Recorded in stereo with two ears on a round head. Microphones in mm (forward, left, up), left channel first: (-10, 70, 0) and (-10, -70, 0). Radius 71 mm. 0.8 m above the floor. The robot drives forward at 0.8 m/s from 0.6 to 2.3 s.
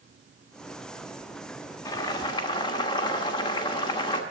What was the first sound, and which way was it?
Boiling, 20° left (ahead or behind).